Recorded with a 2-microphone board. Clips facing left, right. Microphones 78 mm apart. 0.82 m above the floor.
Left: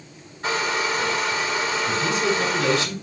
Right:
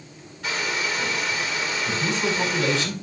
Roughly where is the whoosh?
No whoosh in this recording.